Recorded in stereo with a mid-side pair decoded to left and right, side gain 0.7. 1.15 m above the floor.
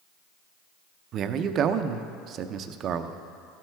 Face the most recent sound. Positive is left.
turn(degrees=-45)